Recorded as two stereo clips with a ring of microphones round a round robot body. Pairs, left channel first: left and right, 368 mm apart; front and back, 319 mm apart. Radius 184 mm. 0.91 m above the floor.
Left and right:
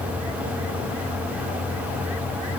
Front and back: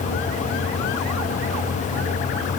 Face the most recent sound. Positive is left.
No sound to turn to.